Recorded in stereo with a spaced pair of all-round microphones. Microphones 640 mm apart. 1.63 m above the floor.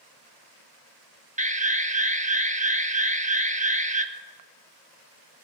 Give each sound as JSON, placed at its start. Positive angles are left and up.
{"t": 1.4, "sound": "an alarm", "side_deg": -10, "distance_m": 1.0}